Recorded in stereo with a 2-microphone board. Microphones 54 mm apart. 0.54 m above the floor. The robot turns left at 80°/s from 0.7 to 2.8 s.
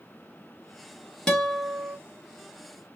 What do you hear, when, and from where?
1.3 s a guitar: 15° left, 0.7 m; by 2.0 s 40° right, 0.7 m